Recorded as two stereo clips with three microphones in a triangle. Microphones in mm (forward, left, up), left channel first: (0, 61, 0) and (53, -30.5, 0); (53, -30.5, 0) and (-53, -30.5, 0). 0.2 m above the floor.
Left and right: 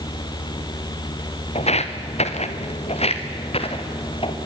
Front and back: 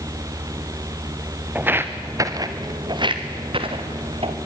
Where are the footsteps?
105° left, 1.9 m; by 4.4 s 155° left, 3.5 m.